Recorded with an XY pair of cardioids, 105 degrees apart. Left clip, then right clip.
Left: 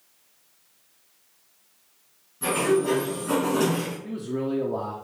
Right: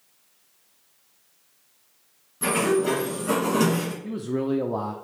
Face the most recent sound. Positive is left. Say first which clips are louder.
# right 2 dB
turn(degrees=-35)